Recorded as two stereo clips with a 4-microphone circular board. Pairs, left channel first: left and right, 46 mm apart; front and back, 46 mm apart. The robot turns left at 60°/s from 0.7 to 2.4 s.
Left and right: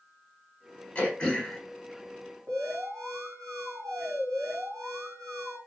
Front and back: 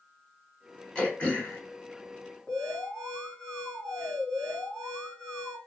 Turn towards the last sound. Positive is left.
turn(degrees=-70)